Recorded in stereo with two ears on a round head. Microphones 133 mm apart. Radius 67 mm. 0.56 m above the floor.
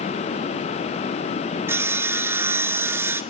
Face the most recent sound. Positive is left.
turn(degrees=-15)  # may be behind; listen again after turning